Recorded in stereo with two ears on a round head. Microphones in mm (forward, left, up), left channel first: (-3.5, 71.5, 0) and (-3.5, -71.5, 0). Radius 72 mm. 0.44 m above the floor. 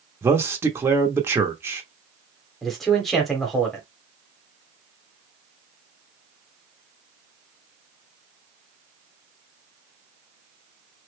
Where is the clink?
I don't hear a clink.